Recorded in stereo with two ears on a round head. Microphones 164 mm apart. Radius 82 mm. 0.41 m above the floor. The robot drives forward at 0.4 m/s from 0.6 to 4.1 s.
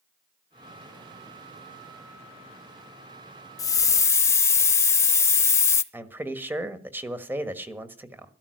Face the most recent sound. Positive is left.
turn(degrees=-10)  # may be behind; listen again after turning